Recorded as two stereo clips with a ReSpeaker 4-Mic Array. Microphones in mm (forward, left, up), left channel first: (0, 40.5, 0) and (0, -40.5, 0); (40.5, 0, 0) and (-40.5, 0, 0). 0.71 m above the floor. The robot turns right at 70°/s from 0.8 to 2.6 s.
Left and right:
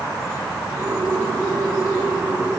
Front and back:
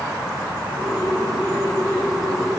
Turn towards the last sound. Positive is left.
No sound to turn to.